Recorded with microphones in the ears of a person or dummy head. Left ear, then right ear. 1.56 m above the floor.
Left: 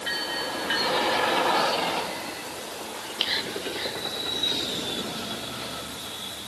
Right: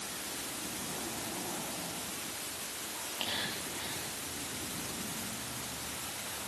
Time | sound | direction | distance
3.0 | whispering | 65° left (ahead or behind) | 4 m